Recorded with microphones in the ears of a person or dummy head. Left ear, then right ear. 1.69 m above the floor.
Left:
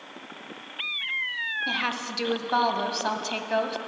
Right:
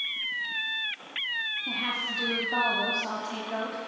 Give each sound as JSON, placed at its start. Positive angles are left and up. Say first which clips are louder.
{"t": 1.7, "sound": "a woman speaking", "louder": "left 1 dB", "side_deg": 45, "distance_m": 1.1}